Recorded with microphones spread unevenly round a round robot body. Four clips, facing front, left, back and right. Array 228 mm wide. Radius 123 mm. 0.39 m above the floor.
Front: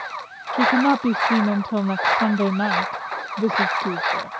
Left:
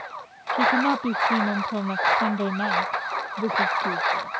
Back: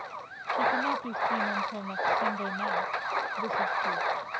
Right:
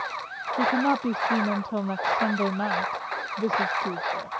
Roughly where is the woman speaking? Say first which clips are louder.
Left 2 dB, front 10 dB; ahead.